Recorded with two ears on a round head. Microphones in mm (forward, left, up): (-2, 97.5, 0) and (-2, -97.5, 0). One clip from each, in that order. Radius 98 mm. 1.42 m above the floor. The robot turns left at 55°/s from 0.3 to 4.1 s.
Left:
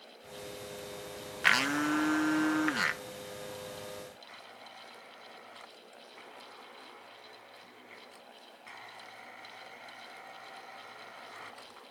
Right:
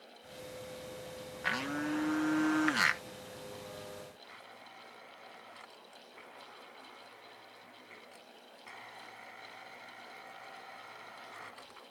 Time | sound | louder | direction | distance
1.4 | a blender | left 8 dB | 65° left | ?
4.2 | a blender | left 2 dB | 5° left (ahead or behind) | ?